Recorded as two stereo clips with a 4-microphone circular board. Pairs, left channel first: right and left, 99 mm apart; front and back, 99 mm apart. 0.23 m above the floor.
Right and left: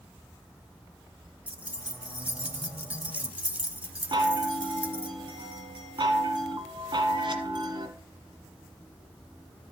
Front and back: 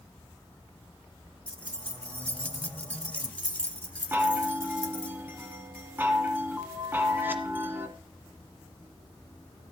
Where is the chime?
115° left, 1.6 m.